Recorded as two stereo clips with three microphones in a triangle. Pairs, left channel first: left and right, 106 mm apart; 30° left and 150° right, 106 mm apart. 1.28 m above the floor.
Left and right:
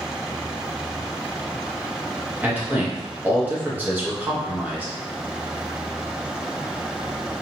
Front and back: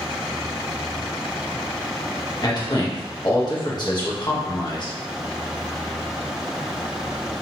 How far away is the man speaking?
About 1.3 m.